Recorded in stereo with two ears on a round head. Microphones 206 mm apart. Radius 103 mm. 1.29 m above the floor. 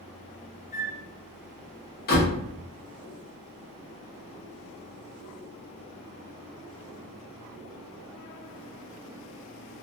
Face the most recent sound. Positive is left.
turn(degrees=40)  # may be behind; listen again after turning